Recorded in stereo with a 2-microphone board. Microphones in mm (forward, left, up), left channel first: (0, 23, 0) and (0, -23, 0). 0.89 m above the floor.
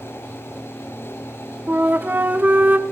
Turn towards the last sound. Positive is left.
turn(degrees=-35)  # may be behind; listen again after turning